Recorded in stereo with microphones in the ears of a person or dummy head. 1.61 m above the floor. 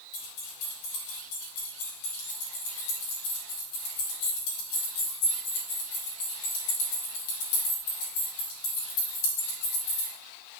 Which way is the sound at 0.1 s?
70° left (ahead or behind).